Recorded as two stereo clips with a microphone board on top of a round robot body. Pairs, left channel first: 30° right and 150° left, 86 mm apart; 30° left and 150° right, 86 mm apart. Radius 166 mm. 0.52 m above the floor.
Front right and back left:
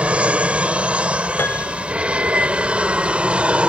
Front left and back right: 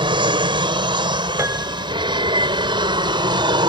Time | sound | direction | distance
0.0 | an aircraft | 135° right | ?
1.4 | a piano | 95° right | ?